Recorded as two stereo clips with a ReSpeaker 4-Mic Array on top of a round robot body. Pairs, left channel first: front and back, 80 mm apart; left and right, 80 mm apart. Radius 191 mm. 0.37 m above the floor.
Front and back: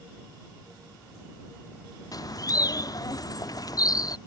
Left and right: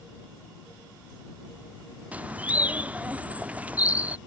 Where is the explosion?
No explosion in this recording.